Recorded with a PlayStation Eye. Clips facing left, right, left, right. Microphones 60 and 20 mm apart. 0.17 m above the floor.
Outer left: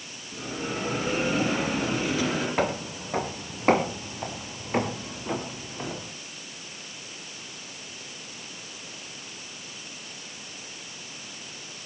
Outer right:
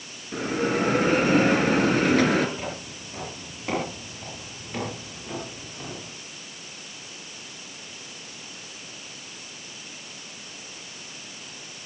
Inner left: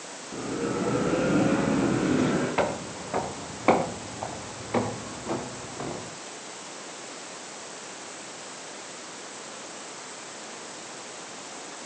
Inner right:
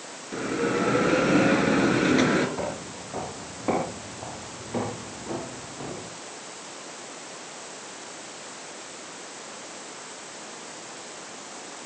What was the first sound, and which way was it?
A bell, 55° right (ahead or behind).